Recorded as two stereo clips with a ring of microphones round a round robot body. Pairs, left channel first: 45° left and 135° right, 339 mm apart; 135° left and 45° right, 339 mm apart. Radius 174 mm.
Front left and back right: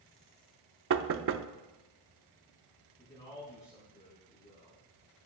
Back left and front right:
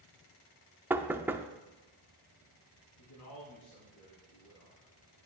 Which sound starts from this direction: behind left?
A man speaking, at 3.0 s.